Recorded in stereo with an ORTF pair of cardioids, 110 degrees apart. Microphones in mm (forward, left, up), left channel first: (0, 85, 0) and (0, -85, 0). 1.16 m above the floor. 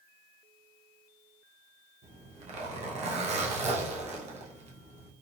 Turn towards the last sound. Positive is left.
turn(degrees=-40)